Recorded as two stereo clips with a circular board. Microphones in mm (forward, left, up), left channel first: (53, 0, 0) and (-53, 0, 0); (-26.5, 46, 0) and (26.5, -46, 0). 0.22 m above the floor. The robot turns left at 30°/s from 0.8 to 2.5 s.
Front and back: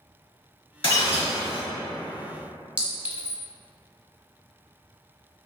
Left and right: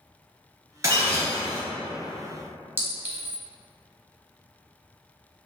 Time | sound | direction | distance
0.8 | breaking glass | 5° right | 1.5 m
2.8 | a clink | 115° right | 0.6 m